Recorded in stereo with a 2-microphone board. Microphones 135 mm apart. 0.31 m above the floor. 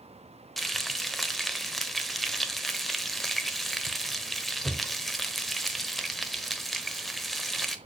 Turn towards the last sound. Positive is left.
turn(degrees=0)  # may be behind; listen again after turning